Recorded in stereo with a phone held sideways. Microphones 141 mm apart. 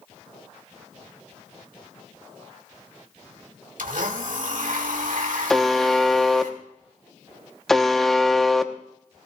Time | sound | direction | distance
3.8 | a blender | 80° right | 1.8 m
5.5 | a buzzer | 5° left (ahead or behind) | 0.8 m